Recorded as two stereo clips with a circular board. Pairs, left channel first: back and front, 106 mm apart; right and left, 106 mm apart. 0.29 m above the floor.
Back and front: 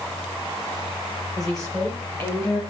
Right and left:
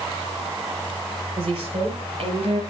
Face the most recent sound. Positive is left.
turn(degrees=120)